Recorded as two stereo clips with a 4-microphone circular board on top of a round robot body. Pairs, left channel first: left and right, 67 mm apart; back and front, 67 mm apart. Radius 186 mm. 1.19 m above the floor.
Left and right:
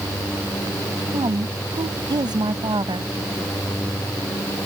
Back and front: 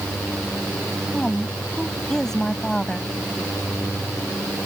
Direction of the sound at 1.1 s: 95° right.